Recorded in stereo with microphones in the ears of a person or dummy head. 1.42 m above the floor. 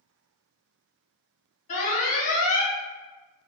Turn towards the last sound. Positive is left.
turn(degrees=45)  # may be behind; listen again after turning